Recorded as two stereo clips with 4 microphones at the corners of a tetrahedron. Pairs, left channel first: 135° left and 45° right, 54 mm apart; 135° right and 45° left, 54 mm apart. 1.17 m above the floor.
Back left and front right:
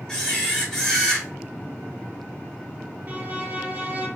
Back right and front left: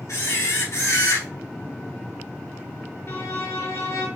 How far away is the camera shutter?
About 3 m.